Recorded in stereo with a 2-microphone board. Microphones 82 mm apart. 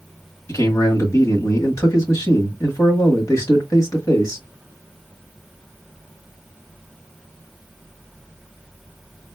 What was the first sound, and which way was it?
A man speaking, 40° left (ahead or behind).